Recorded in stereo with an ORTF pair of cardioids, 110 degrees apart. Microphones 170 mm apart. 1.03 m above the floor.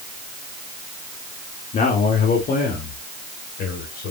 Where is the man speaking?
50° left, 2 m; by 4.1 s 70° left, 4.5 m.